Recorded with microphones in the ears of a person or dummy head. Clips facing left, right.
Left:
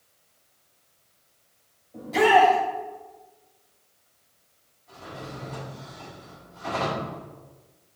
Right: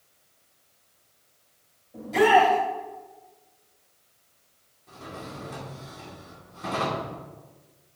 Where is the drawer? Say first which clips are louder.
Even; 60° right (ahead or behind), 2 m.